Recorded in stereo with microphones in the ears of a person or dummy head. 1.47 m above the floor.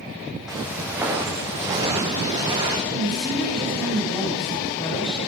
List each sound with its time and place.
0.5 s footsteps: 5° right (ahead or behind), 4.5 m; by 2.8 s 20° right (ahead or behind), 5 m
2.9 s a woman speaking: 25° left (ahead or behind), 5.5 m